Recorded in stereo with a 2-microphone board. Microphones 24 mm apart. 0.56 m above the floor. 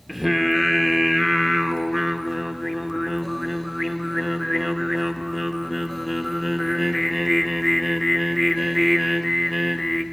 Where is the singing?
Centre (ahead or behind), 0.6 m.